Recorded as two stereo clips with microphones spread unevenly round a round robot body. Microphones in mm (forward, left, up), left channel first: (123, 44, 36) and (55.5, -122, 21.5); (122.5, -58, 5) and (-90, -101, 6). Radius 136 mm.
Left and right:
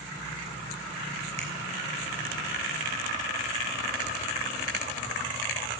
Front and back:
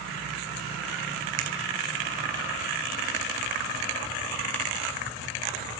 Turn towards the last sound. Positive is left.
turn(degrees=-175)